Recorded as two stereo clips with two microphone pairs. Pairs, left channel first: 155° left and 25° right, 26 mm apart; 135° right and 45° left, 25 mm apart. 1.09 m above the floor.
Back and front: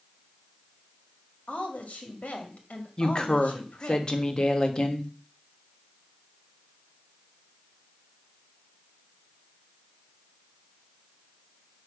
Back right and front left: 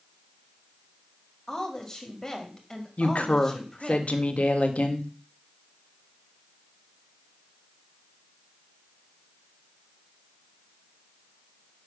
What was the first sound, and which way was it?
A woman speaking, 155° left.